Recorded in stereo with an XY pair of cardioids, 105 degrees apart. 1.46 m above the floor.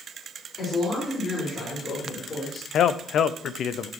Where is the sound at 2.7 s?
60° left, 0.6 m.